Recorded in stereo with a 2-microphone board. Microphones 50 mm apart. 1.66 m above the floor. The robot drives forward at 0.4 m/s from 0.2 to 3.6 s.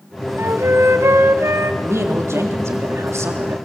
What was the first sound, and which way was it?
A flute, 75° right (ahead or behind).